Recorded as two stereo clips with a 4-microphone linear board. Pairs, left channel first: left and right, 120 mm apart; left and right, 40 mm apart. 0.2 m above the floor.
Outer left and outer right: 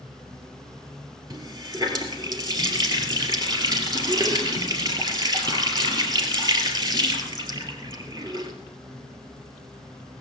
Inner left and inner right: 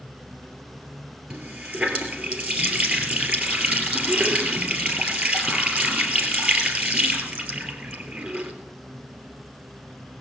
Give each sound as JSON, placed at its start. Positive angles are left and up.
{"t": 1.3, "sound": "a running tap", "side_deg": -35, "distance_m": 3.0}